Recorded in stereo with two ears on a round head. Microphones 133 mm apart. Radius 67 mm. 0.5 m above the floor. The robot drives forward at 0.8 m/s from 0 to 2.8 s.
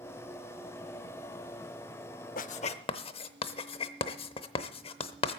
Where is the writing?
60° left (ahead or behind), 0.5 m; by 5.4 s 40° left (ahead or behind), 0.8 m.